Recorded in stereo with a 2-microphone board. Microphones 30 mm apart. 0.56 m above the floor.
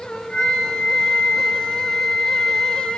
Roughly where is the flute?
Left.